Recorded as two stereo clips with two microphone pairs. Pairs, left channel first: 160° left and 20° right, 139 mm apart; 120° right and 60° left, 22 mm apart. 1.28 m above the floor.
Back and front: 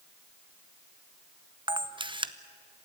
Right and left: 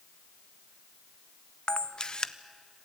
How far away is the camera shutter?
About 0.8 m.